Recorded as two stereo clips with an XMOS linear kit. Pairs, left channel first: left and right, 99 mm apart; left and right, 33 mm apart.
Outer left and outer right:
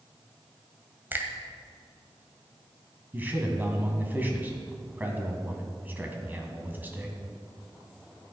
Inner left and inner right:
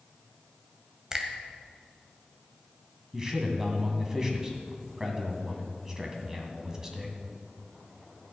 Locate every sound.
1.1 s a finger snap: 20° right (ahead or behind), 1.4 m
3.1 s a man speaking: 20° right (ahead or behind), 2 m